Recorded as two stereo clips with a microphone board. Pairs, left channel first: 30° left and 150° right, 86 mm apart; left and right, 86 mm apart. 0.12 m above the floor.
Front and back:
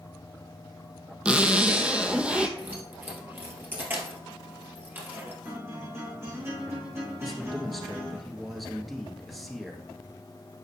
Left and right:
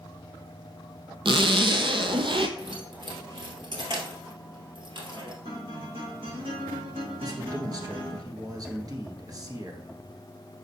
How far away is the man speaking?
About 1.9 m.